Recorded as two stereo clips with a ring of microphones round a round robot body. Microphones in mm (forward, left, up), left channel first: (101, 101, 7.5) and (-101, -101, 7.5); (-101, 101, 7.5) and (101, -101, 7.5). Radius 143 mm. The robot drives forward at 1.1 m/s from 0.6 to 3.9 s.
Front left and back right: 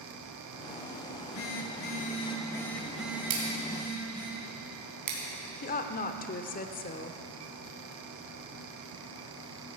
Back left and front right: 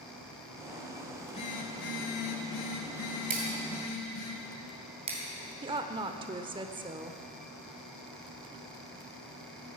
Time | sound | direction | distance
1.1 | a phone buzzing | 60° left | 1.8 m
3.3 | scissors | 105° right | 3.5 m
5.6 | a woman speaking | 15° left | 0.8 m